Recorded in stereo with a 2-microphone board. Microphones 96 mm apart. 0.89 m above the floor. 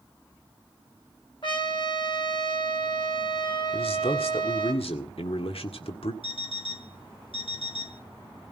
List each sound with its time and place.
1.4 s a trumpet: 60° left (ahead or behind), 3.5 m
3.7 s a man speaking: 80° left, 1.8 m
6.2 s an alarm clock: 65° left (ahead or behind), 2 m